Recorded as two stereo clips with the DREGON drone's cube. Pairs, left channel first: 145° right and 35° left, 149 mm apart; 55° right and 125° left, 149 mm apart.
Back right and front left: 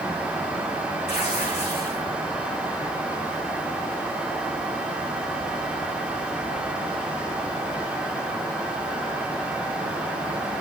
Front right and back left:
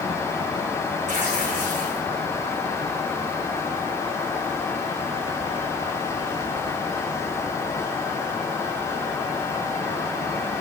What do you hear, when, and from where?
1.1 s tearing paper: 165° left, 8.5 m